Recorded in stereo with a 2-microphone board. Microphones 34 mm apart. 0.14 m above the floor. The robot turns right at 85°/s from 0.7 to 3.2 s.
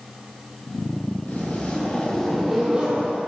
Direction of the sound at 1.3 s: 85° left.